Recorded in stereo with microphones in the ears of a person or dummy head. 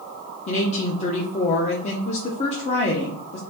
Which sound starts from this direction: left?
A woman speaking, at 0.5 s.